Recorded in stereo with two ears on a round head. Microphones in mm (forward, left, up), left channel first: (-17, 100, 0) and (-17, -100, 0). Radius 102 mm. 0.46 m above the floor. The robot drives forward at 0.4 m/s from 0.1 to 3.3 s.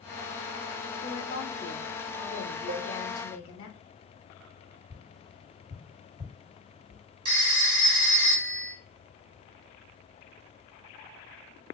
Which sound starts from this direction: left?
A woman speaking, at 1.0 s.